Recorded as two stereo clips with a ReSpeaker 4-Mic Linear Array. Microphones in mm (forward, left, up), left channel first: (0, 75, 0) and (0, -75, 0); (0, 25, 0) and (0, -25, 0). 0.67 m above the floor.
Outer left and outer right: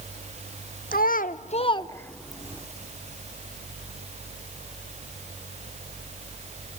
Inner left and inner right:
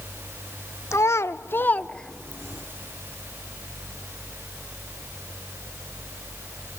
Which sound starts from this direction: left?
A child speaking, at 0.9 s.